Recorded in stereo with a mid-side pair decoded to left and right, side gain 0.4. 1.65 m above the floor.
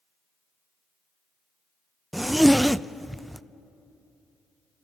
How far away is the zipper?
About 0.5 m.